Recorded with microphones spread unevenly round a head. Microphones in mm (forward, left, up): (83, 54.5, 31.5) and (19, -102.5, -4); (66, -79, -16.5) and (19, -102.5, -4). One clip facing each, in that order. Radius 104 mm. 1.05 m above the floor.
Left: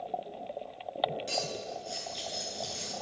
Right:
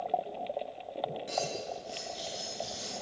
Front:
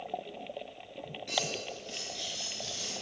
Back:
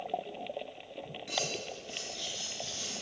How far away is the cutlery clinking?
About 9 m.